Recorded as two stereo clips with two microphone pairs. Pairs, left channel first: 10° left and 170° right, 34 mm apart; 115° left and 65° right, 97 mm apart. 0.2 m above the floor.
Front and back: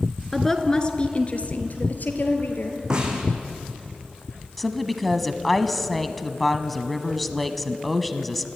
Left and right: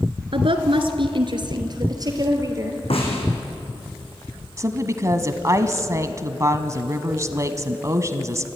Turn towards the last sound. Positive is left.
turn(degrees=-75)